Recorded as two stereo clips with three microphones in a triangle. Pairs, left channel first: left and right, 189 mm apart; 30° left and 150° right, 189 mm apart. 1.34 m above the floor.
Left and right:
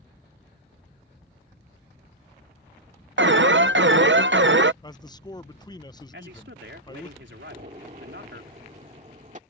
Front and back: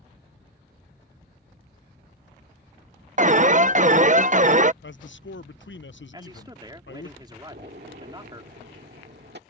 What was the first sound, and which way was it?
An alarm, 100° right.